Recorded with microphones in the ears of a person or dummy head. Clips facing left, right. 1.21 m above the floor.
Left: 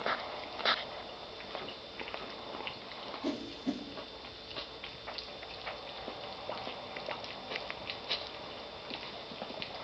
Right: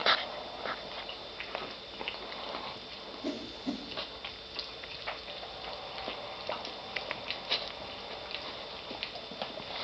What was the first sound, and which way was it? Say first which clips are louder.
A whoosh: left 1 dB; 5° left (ahead or behind).